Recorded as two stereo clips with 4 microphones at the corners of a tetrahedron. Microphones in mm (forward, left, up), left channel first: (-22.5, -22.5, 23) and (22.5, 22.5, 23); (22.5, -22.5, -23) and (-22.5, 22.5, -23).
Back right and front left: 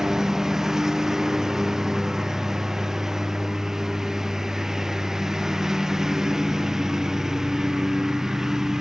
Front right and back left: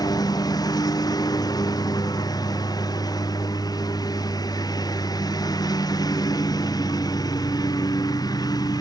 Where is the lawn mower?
35° right.